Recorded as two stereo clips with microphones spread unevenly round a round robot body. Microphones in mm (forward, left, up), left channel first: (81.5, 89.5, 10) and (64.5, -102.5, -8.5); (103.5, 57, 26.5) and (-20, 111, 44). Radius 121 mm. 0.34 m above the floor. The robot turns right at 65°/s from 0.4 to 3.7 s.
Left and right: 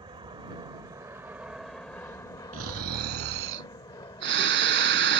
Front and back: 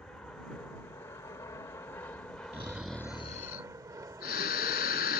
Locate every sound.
0.0 s an aircraft: 90° right; by 5.2 s 125° left
2.5 s snoring: 140° right; by 5.2 s 60° right